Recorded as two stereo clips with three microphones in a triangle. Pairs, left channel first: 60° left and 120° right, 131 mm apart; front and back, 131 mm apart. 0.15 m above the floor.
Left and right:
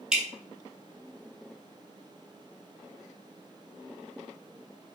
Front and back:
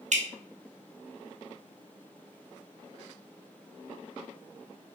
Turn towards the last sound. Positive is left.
turn(degrees=155)